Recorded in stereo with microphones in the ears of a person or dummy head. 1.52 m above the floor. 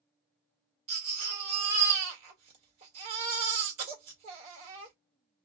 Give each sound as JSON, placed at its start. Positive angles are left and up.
{"t": 0.9, "sound": "a baby crying", "side_deg": -40, "distance_m": 1.3}